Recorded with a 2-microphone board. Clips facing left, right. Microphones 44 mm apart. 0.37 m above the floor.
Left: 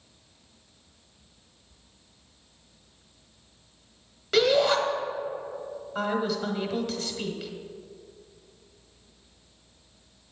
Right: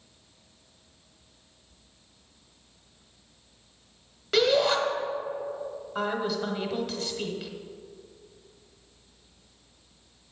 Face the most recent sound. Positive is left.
turn(degrees=-5)  # may be behind; listen again after turning